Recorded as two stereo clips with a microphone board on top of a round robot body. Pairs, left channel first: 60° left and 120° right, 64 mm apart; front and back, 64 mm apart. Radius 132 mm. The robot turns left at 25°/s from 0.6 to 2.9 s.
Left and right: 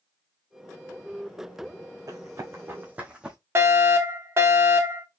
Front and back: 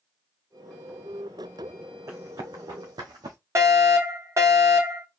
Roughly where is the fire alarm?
Behind right.